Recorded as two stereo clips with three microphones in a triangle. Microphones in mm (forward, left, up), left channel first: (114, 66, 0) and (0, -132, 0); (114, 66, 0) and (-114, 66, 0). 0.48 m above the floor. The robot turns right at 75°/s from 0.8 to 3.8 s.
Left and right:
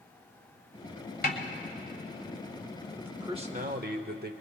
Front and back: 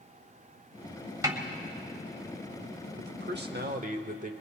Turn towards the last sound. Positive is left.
turn(degrees=-140)